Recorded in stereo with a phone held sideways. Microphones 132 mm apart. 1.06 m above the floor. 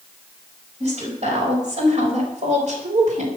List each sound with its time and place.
0.8 s a woman speaking: 55° right (ahead or behind), 5.5 m; by 3.3 s 65° right (ahead or behind), 2.5 m